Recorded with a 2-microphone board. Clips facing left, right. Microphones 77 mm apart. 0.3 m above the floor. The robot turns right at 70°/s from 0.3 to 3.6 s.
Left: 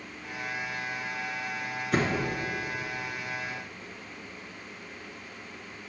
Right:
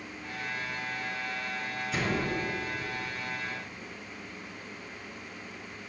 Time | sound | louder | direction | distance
1.9 | a door slam | left 4 dB | 55° left (ahead or behind) | 3 m